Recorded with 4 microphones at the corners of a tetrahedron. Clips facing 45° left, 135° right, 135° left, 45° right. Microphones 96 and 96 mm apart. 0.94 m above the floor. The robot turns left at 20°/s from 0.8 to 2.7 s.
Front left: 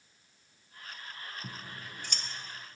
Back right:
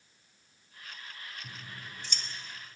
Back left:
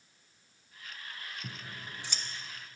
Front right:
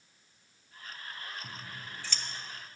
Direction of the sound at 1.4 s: 75° left.